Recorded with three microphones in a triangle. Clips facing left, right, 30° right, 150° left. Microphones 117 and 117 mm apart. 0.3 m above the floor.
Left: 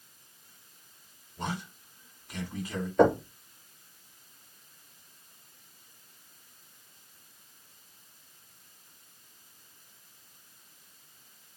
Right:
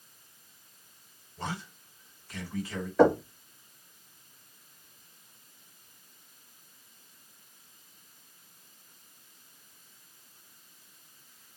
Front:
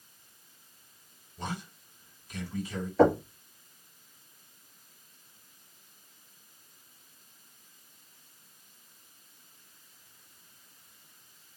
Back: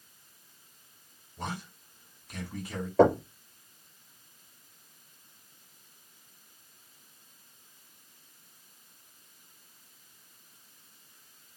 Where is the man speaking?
155° left, 2.5 m.